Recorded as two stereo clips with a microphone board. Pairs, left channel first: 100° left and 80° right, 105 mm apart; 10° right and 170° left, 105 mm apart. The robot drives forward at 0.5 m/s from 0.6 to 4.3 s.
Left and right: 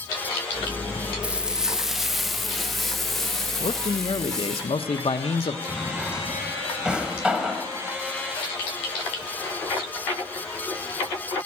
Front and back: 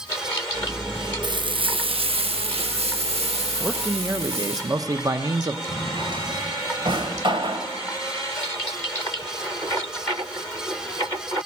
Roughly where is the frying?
Behind right.